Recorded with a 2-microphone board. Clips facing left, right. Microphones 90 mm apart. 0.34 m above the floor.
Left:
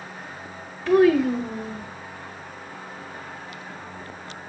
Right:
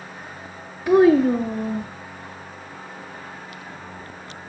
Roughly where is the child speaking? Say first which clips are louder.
Right 3 dB; centre.